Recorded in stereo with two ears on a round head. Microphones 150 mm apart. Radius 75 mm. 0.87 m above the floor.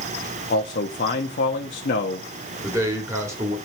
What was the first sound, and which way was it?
A man speaking, 50° left (ahead or behind).